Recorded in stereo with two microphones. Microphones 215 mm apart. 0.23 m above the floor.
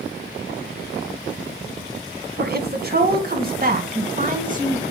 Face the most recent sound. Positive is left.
turn(degrees=-35)  # may be behind; listen again after turning